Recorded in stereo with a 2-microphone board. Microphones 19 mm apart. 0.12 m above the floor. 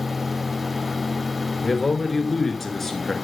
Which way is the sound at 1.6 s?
5° left (ahead or behind).